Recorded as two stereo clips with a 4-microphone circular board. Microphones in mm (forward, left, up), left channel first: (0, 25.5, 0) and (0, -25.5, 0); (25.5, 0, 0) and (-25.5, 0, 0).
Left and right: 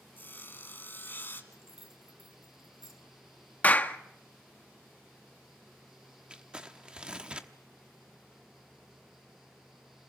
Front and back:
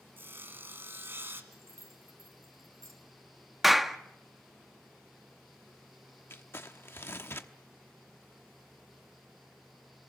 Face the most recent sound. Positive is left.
turn(degrees=-25)